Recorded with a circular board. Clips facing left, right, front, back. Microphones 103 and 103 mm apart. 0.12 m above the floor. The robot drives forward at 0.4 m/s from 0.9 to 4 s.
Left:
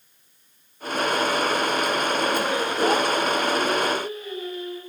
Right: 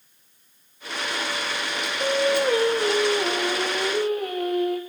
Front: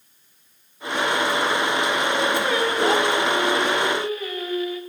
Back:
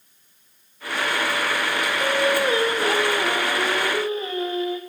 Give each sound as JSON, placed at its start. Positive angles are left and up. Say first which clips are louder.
{"t": 2.0, "sound": "singing", "louder": "right 2 dB, back 1 dB", "azimuth_deg": -110, "distance_m": 8.0}